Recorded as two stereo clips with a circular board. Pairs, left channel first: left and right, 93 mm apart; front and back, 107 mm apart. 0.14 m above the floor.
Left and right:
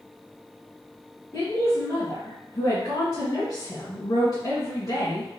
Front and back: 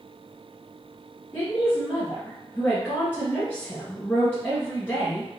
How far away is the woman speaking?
About 2 m.